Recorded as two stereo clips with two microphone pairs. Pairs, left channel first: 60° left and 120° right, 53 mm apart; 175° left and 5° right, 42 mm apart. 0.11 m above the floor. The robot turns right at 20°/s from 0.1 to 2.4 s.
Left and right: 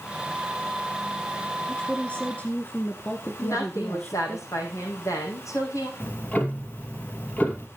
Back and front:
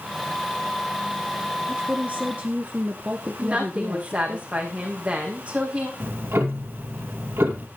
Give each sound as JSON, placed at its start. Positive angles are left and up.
{"t": 1.7, "sound": "a woman speaking", "azimuth_deg": 5, "distance_m": 1.3}
{"t": 3.4, "sound": "a woman speaking", "azimuth_deg": 55, "distance_m": 6.0}
{"t": 6.0, "sound": "ticking", "azimuth_deg": 0, "distance_m": 2.5}